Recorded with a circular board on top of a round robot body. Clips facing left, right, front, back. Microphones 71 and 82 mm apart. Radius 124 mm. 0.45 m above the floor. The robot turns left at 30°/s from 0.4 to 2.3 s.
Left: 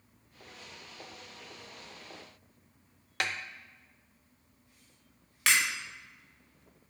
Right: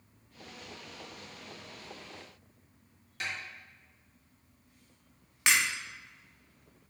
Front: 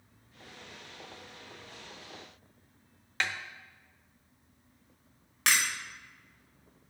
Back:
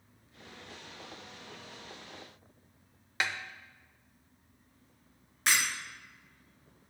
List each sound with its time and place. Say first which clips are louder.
3.2 s a snare drum: left 4 dB, even; 100° left, 0.7 m
5.5 s breaking glass: even, front 1 dB; 20° right, 3 m